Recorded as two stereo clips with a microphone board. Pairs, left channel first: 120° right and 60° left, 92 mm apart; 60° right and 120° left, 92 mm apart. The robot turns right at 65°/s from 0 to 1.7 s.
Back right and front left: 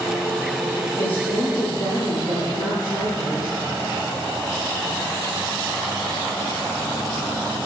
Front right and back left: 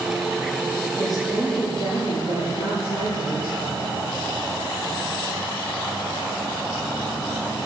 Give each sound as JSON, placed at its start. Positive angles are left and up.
{"t": 1.0, "sound": "a woman speaking", "azimuth_deg": -115, "distance_m": 8.0}